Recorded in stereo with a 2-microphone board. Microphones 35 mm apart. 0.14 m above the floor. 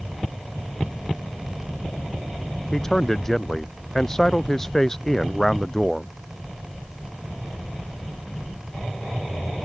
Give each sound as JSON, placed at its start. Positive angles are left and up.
{"t": 2.7, "sound": "a man speaking", "side_deg": 15}